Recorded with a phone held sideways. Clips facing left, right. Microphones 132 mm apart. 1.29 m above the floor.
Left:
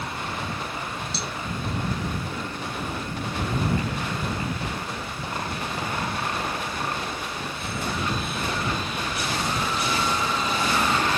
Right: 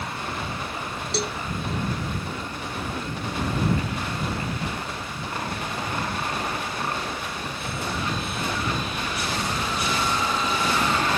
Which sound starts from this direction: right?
A cowbell, at 1.1 s.